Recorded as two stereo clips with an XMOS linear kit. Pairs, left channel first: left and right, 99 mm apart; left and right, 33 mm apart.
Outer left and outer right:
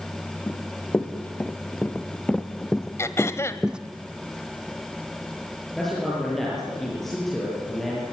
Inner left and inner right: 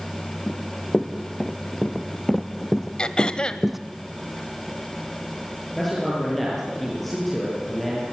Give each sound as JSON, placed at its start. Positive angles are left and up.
{"t": 0.5, "sound": "running footsteps", "side_deg": 20, "distance_m": 2.5}
{"t": 3.0, "sound": "throat clearing", "side_deg": 25, "distance_m": 1.2}
{"t": 5.8, "sound": "a man speaking", "side_deg": 0, "distance_m": 9.5}